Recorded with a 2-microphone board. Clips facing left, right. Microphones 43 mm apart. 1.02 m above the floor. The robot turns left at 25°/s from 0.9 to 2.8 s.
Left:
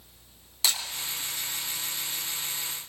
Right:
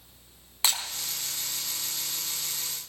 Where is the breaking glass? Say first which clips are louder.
Even; 30° right (ahead or behind), 3.5 m.